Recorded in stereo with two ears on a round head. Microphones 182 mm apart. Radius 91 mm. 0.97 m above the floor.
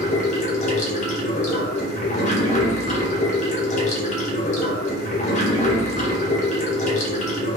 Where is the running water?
35° left (ahead or behind), 0.8 m.